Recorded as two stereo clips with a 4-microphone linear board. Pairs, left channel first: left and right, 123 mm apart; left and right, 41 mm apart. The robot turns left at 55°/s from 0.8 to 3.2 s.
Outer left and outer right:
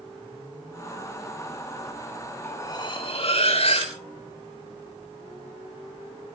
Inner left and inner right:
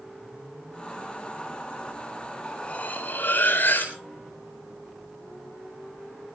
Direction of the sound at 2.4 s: 160° left.